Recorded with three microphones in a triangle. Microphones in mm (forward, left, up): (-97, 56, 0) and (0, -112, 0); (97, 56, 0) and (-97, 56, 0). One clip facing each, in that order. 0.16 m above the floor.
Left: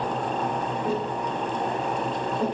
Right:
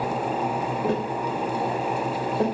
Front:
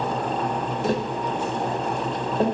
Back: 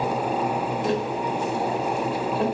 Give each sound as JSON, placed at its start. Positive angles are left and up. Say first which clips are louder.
{"t": 0.8, "sound": "tapping", "louder": "right 3 dB, front 2 dB", "azimuth_deg": -55, "distance_m": 3.0}